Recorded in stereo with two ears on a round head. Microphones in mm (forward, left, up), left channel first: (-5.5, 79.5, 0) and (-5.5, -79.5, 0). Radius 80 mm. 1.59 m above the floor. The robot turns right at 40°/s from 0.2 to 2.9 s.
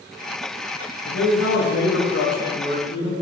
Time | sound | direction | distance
1.1 | a man speaking | 75° left | 0.9 m